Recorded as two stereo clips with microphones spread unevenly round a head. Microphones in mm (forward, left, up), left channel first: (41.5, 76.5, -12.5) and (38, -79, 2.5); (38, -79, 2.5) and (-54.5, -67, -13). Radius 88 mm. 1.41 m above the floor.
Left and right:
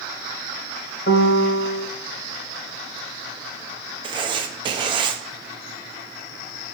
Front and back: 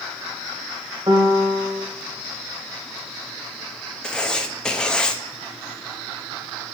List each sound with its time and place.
1.1 s a piano: 115° left, 0.8 m
4.0 s writing: 70° right, 0.8 m